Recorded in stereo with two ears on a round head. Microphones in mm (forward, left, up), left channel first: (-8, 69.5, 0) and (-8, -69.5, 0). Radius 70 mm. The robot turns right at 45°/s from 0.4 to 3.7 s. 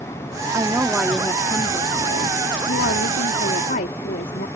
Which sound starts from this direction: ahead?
A woman speaking, at 0.5 s.